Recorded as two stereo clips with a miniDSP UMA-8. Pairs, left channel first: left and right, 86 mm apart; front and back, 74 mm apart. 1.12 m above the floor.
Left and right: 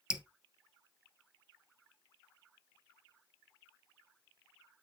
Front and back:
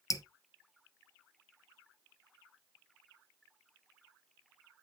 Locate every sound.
0.1 s dripping: 15° right, 0.8 m